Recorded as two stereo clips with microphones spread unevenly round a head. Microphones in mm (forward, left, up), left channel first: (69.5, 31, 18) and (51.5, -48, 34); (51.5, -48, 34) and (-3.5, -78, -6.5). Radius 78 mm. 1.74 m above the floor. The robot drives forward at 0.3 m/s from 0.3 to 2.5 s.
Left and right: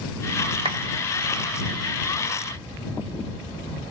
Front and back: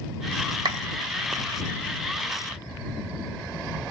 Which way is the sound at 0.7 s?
155° right.